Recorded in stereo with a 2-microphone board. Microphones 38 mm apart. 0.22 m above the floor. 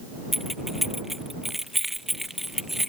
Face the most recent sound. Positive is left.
turn(degrees=-5)  # may be behind; listen again after turning